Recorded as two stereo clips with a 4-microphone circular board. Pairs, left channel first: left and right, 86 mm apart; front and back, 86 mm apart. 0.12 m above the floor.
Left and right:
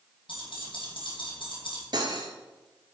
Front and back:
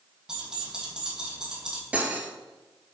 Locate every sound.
0.3 s keys jangling: 95° left, 3 m
1.9 s cutlery clinking: 105° right, 1.3 m